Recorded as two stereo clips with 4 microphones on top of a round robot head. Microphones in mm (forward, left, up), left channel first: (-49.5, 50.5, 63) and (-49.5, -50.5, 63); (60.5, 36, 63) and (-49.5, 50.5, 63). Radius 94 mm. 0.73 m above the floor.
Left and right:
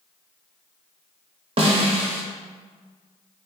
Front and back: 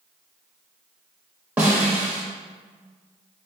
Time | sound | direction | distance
1.6 | a snare drum | 110° right | 0.6 m